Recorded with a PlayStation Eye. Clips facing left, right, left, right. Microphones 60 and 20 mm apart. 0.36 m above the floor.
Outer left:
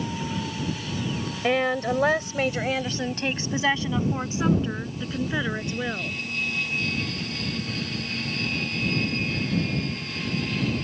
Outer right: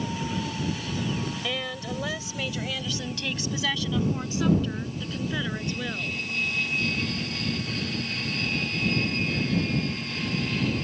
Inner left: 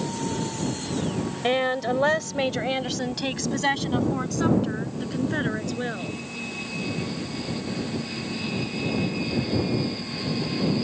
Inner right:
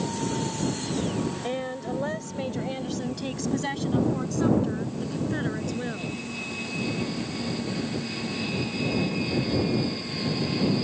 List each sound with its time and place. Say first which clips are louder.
1.4 s a woman speaking: outer left 9 dB, inner left 7 dB; 40° left (ahead or behind); by 6.2 s 20° left (ahead or behind)